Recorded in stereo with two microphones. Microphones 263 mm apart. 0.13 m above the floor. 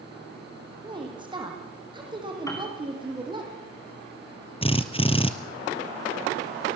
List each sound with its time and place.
0.8 s a woman speaking: 20° right (ahead or behind), 4.5 m
2.5 s a piano: 10° left (ahead or behind), 5 m
4.6 s a drill: 20° left (ahead or behind), 1.2 m